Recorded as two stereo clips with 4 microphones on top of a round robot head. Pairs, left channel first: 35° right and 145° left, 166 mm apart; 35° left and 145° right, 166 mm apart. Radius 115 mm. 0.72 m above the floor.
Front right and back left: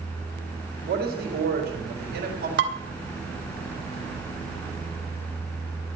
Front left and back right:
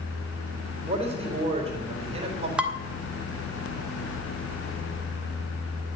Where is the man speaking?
165° left, 3.5 m.